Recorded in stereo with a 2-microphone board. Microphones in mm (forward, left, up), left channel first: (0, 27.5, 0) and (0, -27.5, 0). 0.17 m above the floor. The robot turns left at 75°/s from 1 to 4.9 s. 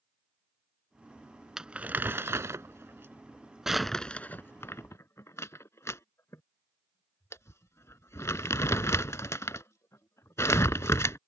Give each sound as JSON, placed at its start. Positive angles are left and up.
{"t": 1.6, "sound": "crumpling", "side_deg": -10}